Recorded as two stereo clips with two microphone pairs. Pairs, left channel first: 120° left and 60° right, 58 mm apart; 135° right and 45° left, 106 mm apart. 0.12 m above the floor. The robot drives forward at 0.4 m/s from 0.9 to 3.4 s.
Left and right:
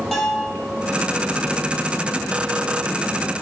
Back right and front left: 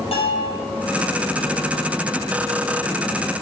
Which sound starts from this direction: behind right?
A bell, at 0.1 s.